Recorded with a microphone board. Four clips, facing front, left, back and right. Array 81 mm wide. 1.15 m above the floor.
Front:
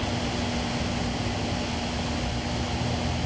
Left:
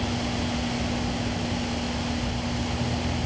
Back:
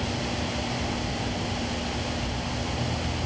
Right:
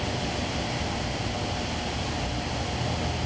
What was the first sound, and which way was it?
Only background noise.